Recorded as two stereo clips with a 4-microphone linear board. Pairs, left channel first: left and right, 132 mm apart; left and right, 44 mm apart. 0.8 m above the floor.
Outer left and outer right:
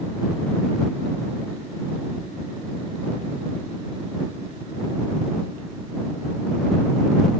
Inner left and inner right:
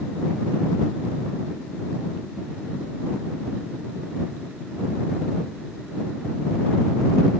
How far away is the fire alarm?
No fire alarm in this recording.